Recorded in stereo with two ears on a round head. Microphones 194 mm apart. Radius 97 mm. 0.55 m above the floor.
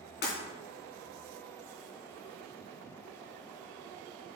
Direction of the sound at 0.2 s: 50° left (ahead or behind).